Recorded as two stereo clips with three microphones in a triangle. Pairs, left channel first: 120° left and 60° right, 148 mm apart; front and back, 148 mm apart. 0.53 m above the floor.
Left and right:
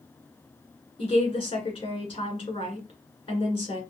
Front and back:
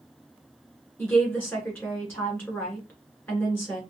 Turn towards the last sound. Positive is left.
turn(degrees=75)